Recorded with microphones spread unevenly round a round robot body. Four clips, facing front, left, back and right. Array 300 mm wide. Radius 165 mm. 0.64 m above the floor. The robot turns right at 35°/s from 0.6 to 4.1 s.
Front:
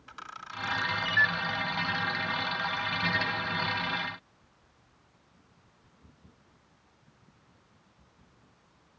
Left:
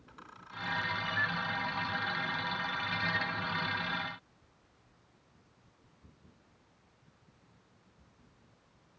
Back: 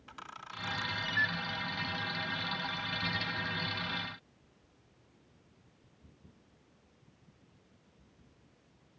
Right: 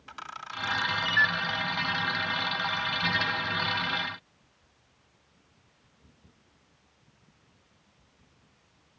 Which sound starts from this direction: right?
A camera shutter, at 0.1 s.